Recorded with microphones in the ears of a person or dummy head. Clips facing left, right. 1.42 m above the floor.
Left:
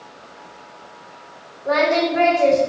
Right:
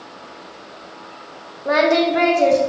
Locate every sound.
1.6 s singing: 50° right (ahead or behind), 0.5 m